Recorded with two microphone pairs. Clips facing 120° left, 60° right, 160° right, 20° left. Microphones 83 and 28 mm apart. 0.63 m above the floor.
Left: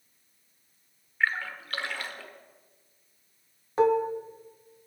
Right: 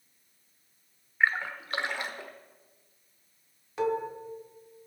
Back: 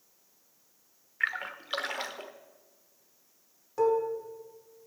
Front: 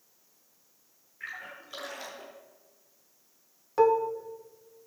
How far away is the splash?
About 1.0 m.